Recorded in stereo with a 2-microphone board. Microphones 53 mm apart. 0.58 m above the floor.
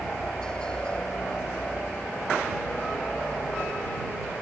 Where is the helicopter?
10° left (ahead or behind); by 4.4 s 25° left (ahead or behind).